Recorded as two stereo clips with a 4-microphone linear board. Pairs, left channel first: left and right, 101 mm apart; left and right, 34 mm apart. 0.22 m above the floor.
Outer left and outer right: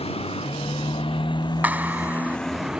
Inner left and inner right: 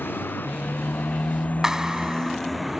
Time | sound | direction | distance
0.0 | a motorcycle | 80° left | ?
1.6 | a clap | 15° right (ahead or behind) | ?